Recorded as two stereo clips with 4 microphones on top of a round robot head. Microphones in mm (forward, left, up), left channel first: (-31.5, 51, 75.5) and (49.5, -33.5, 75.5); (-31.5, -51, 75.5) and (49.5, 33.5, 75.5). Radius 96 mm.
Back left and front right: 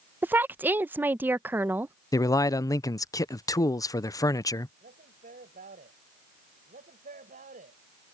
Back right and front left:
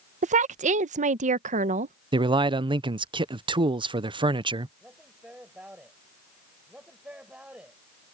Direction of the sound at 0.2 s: 30° left.